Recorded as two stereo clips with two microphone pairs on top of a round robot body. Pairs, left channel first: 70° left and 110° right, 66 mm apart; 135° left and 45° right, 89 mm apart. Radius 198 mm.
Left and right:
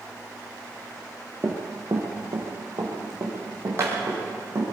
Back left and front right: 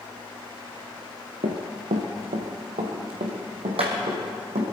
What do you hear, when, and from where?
1.4 s running footsteps: 50° right, 0.9 m; by 4.6 s 55° right, 3.5 m